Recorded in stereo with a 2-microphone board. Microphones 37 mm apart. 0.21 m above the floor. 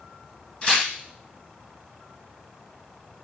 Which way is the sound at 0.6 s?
25° left (ahead or behind).